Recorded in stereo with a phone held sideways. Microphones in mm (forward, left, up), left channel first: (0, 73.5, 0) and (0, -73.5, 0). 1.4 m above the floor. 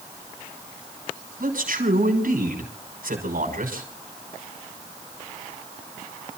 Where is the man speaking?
80° right, 6 m.